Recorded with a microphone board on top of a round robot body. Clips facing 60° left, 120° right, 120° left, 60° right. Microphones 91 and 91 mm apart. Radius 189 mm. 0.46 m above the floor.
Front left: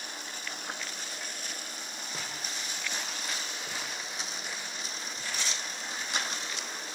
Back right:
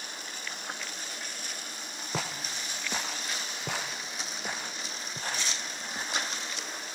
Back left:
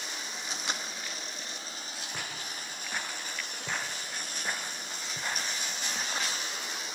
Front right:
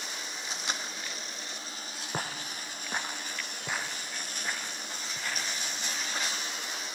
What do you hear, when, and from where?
2.1 s footsteps: 110° right, 1.8 m; by 6.3 s 175° right, 2.5 m